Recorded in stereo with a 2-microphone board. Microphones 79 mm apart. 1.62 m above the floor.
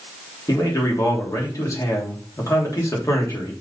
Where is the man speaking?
40° left (ahead or behind), 3 m.